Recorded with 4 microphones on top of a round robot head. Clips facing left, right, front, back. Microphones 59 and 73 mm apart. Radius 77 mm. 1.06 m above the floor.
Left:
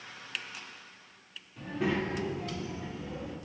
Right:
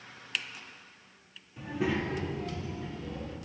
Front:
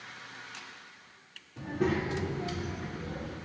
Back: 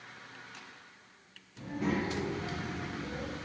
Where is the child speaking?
10° right, 2.5 m; by 3.4 s 15° left, 3.5 m.